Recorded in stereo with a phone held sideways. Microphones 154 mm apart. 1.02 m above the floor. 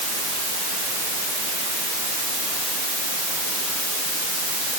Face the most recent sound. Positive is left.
No sound to turn to.